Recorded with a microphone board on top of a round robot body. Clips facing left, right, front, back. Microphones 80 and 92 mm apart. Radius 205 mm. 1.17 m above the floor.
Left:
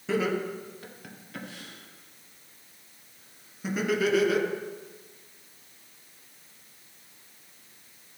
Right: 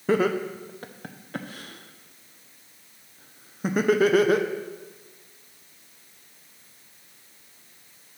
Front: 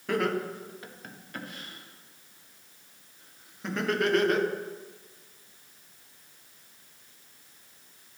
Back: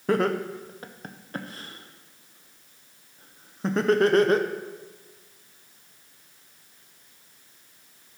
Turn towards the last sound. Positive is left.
turn(degrees=-130)